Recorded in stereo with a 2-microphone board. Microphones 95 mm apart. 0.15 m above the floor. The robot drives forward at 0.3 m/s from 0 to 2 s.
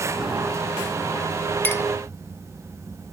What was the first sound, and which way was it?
A clink, 20° left (ahead or behind).